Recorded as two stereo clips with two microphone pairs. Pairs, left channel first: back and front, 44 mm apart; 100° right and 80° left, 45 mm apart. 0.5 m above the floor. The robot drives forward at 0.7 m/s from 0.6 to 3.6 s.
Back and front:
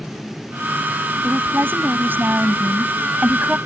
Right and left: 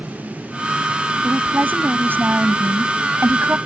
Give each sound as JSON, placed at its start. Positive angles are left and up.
{"t": 1.2, "sound": "a woman speaking", "azimuth_deg": 35}